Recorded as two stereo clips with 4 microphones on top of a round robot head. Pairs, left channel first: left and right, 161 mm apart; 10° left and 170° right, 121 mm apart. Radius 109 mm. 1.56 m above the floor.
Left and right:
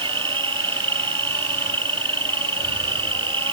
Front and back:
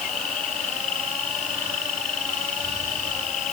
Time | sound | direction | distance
0.0 | an insect | 30° right | ?